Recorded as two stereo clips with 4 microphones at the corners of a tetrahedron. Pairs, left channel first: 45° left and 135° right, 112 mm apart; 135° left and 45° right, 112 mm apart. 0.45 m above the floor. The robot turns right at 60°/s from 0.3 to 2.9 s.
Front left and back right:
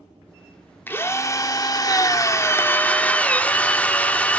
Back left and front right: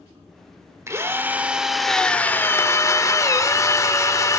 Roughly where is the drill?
Ahead.